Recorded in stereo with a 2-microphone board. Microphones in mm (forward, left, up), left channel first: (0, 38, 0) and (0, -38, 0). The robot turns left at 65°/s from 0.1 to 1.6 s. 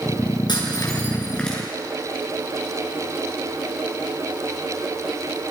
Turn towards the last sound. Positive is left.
turn(degrees=0)  # may be behind; listen again after turning